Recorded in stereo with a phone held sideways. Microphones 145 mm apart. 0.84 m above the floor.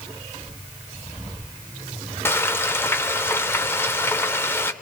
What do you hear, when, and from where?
2.2 s frying: 15° left (ahead or behind), 0.8 m